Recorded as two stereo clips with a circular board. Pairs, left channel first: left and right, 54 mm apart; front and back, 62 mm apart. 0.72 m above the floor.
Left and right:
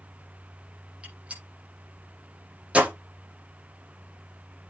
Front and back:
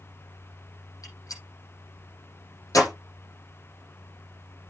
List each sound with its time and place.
1.0 s a gunshot: 25° right, 7.5 m